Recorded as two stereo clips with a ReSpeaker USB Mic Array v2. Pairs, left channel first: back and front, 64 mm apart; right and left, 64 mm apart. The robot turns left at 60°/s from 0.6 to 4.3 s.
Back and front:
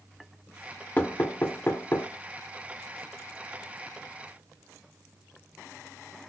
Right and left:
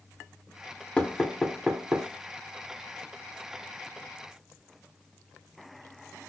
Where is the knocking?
140° right, 0.9 m; by 2.1 s 150° left, 0.9 m.